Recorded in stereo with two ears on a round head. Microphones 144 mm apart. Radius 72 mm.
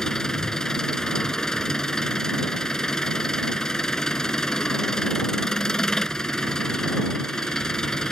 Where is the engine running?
5° left (ahead or behind).